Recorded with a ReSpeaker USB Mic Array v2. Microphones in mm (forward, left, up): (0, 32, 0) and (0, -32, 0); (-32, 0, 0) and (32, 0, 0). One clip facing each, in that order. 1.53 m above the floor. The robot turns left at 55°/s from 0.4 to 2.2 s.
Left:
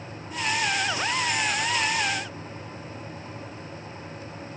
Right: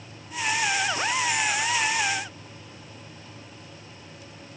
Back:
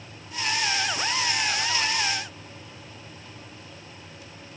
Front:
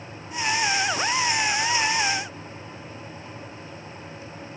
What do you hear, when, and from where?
Only background noise.